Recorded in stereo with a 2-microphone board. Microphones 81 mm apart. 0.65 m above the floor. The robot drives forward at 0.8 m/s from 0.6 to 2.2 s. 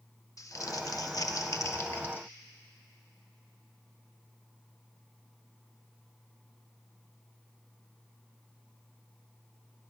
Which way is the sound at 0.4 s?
45° left (ahead or behind).